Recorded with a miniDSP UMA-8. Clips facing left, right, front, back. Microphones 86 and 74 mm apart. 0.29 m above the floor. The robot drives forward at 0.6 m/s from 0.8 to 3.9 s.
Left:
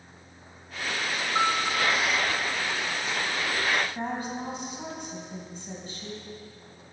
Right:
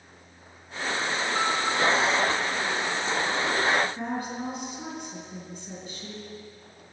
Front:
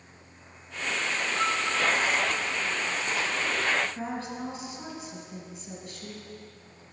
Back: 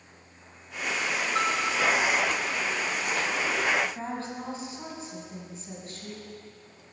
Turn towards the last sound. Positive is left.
turn(degrees=135)